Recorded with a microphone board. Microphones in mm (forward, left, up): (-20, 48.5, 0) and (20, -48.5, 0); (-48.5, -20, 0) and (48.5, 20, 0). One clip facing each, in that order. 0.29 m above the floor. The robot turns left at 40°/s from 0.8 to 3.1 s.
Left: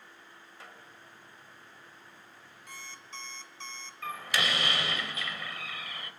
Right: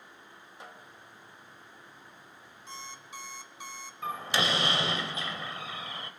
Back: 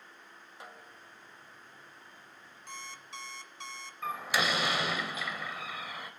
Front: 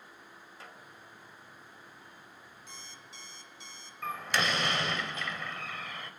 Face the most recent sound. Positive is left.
turn(degrees=-80)